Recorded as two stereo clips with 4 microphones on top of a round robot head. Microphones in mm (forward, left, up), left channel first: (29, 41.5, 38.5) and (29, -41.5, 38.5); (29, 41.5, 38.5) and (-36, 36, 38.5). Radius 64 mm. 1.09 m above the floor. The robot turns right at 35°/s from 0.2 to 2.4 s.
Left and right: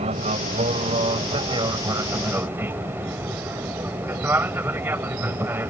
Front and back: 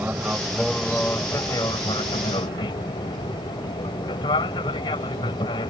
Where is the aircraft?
100° right; by 5.7 s 25° right.